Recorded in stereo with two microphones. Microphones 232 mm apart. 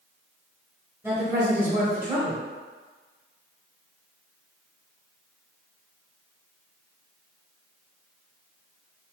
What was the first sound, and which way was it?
A woman speaking, 10° right (ahead or behind).